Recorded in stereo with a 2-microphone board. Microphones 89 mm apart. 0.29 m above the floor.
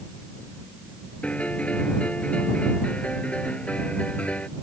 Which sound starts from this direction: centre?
A piano, at 1.2 s.